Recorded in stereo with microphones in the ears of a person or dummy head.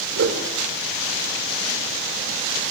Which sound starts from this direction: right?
A whoosh, at 0.2 s.